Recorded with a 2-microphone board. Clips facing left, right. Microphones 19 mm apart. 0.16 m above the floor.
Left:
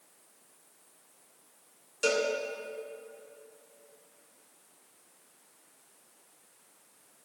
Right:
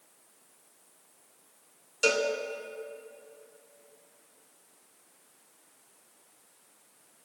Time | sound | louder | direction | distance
2.0 | a cowbell | right 2 dB | 30° right (ahead or behind) | 0.8 m